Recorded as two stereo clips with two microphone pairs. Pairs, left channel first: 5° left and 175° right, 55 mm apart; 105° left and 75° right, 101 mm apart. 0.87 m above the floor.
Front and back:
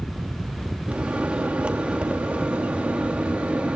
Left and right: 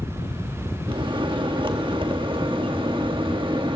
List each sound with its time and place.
0.9 s a microwave: 110° right, 1.0 m